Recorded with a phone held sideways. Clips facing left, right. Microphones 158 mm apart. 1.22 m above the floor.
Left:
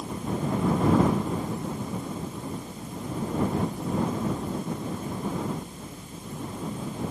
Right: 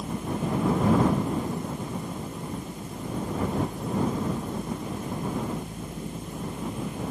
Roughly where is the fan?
Right.